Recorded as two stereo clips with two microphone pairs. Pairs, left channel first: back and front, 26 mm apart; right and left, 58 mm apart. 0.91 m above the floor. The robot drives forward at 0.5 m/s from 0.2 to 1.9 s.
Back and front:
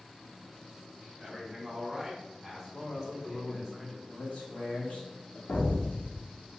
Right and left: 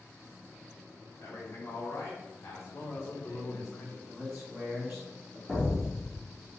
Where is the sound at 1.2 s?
55° right, 1.7 m; by 3.7 s 70° right, 1.5 m.